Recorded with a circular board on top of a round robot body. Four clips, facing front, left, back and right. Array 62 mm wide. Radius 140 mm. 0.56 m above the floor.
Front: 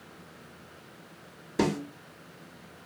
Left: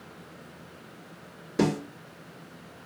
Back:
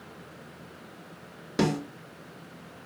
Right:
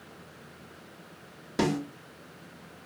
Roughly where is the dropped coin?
I don't hear a dropped coin.